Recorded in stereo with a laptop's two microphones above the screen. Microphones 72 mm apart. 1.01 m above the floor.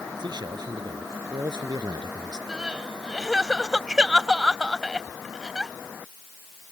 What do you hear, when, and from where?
0.2 s a man speaking: 85° right; by 2.4 s 80° right
2.5 s crying: 5° right (ahead or behind)